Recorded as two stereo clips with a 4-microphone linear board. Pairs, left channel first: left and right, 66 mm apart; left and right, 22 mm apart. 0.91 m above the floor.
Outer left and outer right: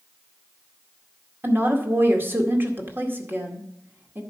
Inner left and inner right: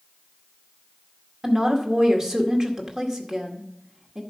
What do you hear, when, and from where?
1.4 s a woman speaking: 30° right (ahead or behind), 2.0 m